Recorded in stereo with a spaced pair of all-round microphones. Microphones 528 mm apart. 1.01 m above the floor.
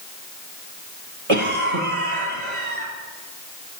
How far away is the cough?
About 1.8 m.